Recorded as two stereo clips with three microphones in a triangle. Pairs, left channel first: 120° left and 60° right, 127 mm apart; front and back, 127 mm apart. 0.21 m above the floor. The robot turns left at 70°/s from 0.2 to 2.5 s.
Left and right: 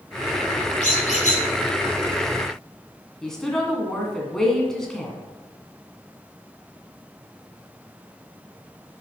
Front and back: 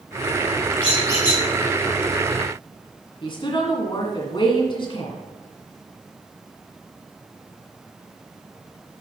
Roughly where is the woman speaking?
Ahead left.